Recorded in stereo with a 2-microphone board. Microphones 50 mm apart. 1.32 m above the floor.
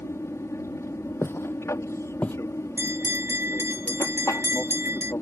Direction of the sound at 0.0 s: 65° left (ahead or behind).